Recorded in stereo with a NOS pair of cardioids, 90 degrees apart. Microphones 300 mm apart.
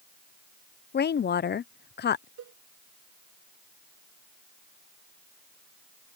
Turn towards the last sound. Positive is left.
turn(degrees=-60)